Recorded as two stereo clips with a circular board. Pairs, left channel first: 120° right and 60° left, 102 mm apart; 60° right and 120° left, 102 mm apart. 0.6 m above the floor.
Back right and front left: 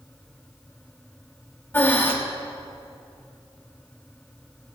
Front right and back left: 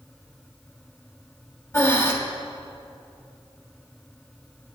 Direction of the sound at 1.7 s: 75° right.